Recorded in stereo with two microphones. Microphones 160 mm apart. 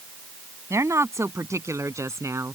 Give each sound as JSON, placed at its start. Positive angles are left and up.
{"t": 0.7, "sound": "a woman speaking", "side_deg": -20}